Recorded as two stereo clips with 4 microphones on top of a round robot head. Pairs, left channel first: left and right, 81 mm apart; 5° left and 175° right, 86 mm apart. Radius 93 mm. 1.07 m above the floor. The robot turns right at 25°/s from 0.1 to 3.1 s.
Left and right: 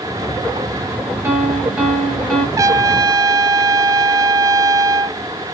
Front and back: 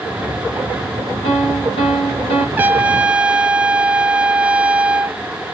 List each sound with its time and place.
1.2 s a piano: 25° right, 2 m; by 2.5 s 5° left, 2 m
2.6 s a trumpet: 115° right, 0.6 m; by 5.2 s 100° right, 0.6 m